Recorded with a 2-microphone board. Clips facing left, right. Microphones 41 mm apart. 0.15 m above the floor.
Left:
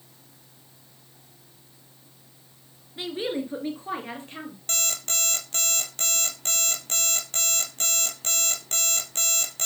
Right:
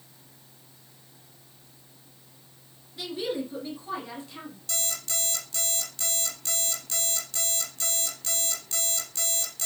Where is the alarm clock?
50° left (ahead or behind), 2 m.